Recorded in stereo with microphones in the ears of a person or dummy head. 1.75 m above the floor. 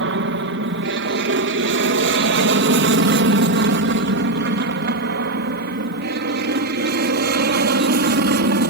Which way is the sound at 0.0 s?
60° right (ahead or behind).